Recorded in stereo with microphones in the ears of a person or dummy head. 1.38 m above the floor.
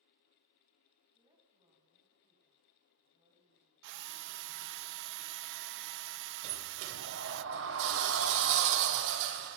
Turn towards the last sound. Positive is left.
turn(degrees=-70)  # may be behind; listen again after turning